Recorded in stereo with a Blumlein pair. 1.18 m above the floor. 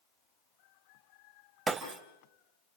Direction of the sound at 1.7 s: 15° right.